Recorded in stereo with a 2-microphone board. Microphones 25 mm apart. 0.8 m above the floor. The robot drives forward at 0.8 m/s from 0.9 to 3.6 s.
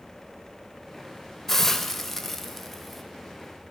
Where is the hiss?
15° left (ahead or behind), 1.4 m; by 3.0 s 10° left (ahead or behind), 2.5 m.